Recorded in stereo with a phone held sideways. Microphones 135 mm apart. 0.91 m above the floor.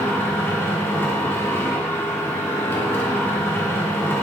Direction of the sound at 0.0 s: 15° left (ahead or behind).